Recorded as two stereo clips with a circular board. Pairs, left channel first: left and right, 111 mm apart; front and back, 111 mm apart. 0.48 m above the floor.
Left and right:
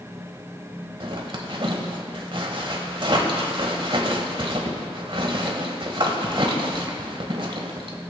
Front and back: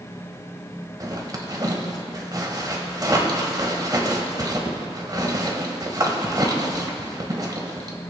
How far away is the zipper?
About 1.4 m.